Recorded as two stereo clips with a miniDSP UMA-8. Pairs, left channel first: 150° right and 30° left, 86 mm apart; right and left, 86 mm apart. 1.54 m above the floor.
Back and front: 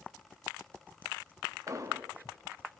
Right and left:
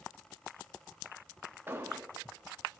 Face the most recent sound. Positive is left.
turn(degrees=40)